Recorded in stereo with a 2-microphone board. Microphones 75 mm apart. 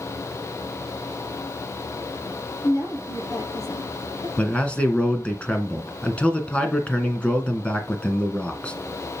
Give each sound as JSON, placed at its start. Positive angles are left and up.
{"t": 2.6, "sound": "a woman speaking", "side_deg": 50, "distance_m": 4.5}
{"t": 4.4, "sound": "a man speaking", "side_deg": 15, "distance_m": 2.0}